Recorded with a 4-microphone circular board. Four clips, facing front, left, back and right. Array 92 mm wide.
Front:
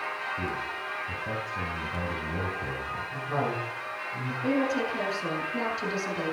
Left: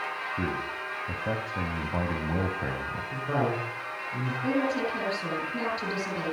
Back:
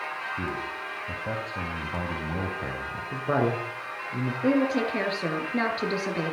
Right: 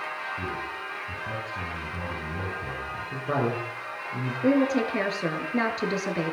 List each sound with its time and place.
0.4 s a man speaking: 110° left, 3 m
3.1 s a woman speaking: 160° right, 9 m
4.4 s a woman speaking: 120° right, 8 m